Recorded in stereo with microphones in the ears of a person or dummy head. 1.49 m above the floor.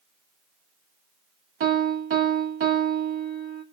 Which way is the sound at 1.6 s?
60° right (ahead or behind).